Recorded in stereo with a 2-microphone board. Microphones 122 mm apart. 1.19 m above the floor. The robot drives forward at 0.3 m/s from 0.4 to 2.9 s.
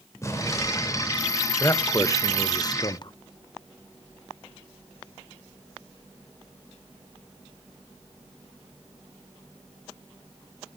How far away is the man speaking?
About 1.0 m.